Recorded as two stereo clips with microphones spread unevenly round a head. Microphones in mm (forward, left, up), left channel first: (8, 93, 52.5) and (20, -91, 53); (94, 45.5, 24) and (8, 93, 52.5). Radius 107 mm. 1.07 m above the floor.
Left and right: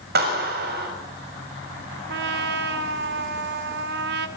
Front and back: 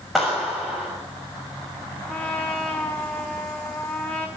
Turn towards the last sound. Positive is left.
turn(degrees=-115)